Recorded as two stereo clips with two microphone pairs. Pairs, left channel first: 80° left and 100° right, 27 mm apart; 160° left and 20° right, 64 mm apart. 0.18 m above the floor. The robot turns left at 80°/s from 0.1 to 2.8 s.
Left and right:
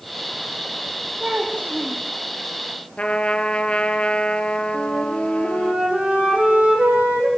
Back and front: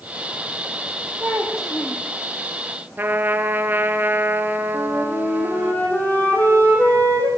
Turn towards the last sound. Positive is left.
turn(degrees=-135)